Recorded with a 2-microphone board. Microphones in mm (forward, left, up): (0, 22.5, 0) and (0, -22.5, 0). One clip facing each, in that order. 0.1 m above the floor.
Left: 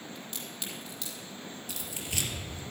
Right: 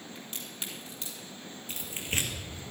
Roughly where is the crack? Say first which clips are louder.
Left 1 dB; right.